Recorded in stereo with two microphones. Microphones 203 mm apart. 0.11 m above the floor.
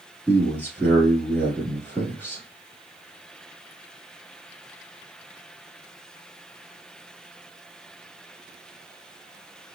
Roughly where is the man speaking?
Centre.